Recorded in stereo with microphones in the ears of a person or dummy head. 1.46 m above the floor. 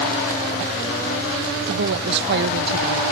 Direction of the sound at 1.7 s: 65° right (ahead or behind).